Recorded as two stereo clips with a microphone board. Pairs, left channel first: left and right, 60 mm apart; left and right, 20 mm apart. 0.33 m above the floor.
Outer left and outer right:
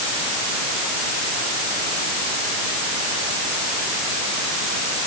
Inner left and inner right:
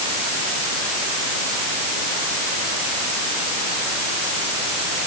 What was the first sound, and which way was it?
Only background noise.